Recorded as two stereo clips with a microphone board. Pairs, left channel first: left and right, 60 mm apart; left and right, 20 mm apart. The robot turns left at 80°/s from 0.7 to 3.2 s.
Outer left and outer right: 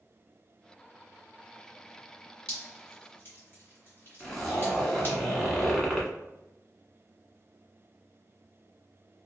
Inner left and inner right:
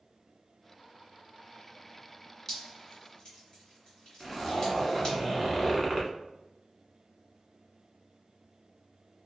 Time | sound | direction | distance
2.5 | dripping | 20° left (ahead or behind) | 1.6 m
4.2 | a zipper | 10° left (ahead or behind) | 1.0 m